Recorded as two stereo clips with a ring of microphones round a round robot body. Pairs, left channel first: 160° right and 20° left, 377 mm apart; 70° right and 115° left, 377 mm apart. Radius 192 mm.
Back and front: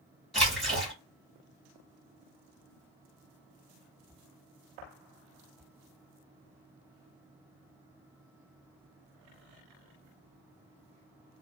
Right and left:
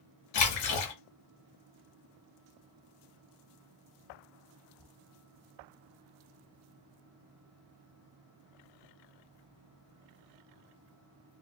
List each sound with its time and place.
0.3 s a splash: 70° right, 1.3 m